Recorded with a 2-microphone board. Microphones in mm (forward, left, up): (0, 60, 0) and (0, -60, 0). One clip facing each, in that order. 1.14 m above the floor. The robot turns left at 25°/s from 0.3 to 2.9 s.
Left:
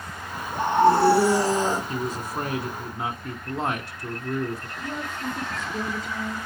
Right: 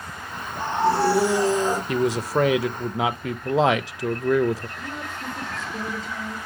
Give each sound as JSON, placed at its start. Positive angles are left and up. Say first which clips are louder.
{"t": 0.5, "sound": "a scream", "louder": "left 4 dB", "azimuth_deg": 55, "distance_m": 5.0}
{"t": 1.9, "sound": "a man speaking", "louder": "right 7 dB", "side_deg": -70, "distance_m": 0.6}
{"t": 4.8, "sound": "a woman speaking", "louder": "left 2 dB", "side_deg": 5, "distance_m": 4.0}